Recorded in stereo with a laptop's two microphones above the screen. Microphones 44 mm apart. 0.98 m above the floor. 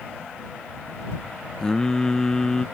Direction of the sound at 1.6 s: 15° left (ahead or behind).